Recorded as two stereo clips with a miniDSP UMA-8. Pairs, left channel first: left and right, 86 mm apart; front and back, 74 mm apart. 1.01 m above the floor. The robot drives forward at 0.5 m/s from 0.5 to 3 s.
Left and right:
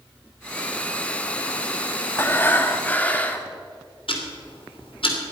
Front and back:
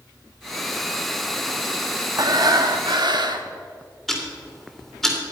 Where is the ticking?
85° left, 2.5 m.